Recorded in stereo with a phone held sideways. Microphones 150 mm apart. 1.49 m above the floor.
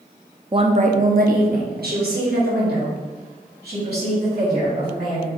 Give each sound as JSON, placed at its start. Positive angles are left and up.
{"t": 0.5, "sound": "a woman speaking", "side_deg": -30, "distance_m": 0.7}